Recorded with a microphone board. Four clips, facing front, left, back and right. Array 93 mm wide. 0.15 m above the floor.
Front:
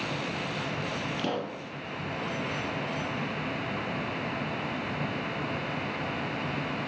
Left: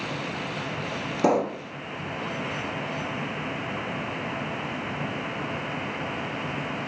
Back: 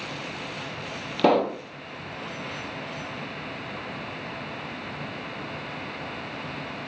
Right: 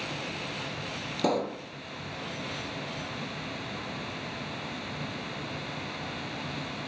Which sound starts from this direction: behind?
A pop, at 1.2 s.